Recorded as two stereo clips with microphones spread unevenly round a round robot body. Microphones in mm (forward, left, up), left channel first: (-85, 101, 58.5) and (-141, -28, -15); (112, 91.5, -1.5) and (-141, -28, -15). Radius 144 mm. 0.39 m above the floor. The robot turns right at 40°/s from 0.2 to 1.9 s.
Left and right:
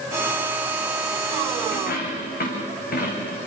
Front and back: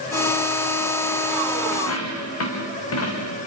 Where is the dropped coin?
55° left, 5 m; by 3.4 s 60° left, 5 m.